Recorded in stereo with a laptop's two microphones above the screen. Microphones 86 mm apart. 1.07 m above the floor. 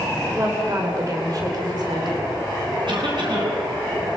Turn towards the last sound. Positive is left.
turn(degrees=-65)  # may be behind; listen again after turning